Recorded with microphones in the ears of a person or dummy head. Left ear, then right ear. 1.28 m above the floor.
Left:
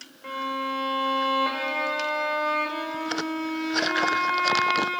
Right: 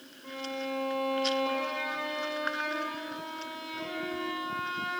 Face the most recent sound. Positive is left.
turn(degrees=55)  # may be behind; listen again after turning